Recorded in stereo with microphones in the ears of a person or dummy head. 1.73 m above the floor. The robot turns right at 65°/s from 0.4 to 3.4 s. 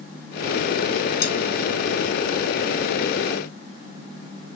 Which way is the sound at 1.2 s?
60° left (ahead or behind).